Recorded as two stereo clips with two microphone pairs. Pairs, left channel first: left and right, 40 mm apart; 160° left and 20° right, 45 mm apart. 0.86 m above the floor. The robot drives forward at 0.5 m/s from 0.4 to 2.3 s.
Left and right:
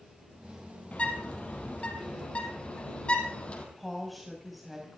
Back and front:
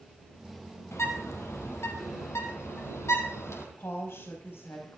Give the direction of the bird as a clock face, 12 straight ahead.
7 o'clock.